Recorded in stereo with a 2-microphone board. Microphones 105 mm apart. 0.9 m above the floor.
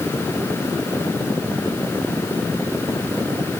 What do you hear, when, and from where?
Only background noise.